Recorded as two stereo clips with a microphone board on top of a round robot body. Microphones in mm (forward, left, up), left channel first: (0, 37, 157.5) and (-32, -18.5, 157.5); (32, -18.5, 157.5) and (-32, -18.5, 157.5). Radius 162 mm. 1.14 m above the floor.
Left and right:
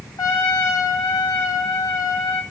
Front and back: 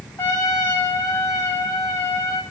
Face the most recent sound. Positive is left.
turn(degrees=60)